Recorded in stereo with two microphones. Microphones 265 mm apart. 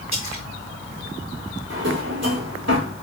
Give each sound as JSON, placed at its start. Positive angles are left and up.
{"t": 0.1, "sound": "a splash", "side_deg": 85, "distance_m": 3.0}
{"t": 1.7, "sound": "a drawer", "side_deg": -65, "distance_m": 3.5}